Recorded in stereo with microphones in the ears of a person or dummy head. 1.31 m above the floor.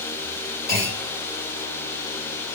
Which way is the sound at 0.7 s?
15° left (ahead or behind).